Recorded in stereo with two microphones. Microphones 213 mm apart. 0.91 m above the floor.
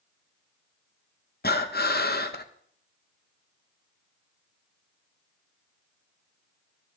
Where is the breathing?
45° left (ahead or behind), 0.9 m.